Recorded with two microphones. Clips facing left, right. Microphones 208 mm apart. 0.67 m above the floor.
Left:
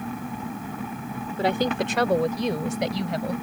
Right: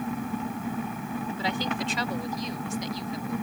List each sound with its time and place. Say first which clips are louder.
1.4 s a woman speaking: left 9 dB; 55° left (ahead or behind); by 3.3 s 75° left (ahead or behind)